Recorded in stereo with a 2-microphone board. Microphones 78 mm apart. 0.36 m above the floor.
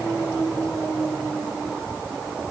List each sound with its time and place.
Only background noise.